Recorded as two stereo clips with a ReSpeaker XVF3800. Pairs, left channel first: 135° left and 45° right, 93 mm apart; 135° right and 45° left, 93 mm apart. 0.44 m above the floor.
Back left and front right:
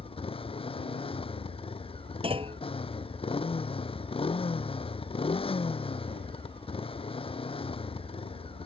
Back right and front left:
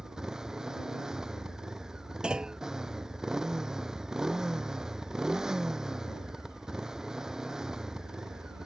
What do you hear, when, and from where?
0.0 s a motorcycle: 130° left
2.2 s a clunk: 35° right